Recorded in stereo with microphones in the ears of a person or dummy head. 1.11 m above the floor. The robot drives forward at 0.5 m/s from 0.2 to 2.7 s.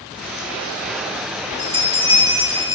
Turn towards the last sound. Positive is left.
turn(degrees=-20)  # may be behind; listen again after turning